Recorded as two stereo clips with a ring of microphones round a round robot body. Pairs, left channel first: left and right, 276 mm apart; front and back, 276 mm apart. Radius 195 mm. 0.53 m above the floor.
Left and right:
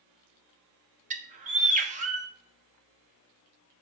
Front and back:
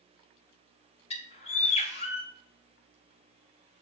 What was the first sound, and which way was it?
A bird, 50° right.